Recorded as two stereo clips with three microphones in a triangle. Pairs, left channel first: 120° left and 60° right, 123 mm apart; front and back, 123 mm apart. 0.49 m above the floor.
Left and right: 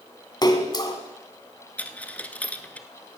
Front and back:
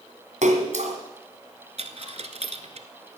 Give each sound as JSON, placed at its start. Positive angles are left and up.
{"t": 0.4, "sound": "a splash", "azimuth_deg": 175, "distance_m": 1.5}
{"t": 1.8, "sound": "a dropped coin", "azimuth_deg": -165, "distance_m": 0.8}